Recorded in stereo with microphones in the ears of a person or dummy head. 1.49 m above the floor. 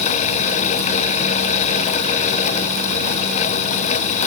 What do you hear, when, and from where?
Only background noise.